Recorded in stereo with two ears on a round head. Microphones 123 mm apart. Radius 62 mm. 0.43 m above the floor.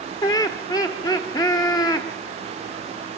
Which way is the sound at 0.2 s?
30° left (ahead or behind).